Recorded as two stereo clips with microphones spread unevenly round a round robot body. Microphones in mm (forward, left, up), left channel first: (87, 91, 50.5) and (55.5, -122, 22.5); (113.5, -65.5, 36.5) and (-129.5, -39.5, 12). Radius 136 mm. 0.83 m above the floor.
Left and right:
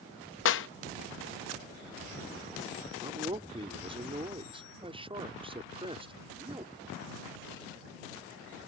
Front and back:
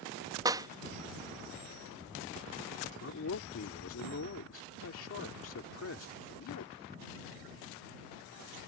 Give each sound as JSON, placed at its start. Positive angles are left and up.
{"t": 0.5, "sound": "a clap", "azimuth_deg": 105}
{"t": 3.0, "sound": "a man speaking", "azimuth_deg": -35}